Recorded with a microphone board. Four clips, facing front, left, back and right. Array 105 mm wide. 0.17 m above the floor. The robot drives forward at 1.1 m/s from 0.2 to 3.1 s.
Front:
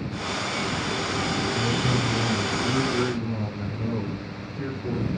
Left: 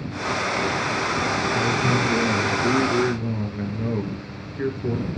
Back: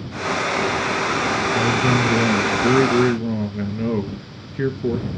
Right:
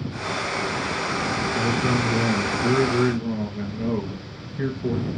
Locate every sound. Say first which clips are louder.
1.6 s a man speaking: right 1 dB, back 7 dB; 165° left, 1.6 m; by 5.1 s 175° left, 3 m